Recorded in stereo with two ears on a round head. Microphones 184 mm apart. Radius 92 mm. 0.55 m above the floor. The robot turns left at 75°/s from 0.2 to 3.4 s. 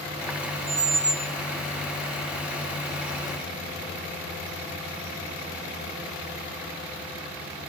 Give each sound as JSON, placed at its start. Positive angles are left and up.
{"t": 0.7, "sound": "a squeak", "azimuth_deg": -140, "distance_m": 0.7}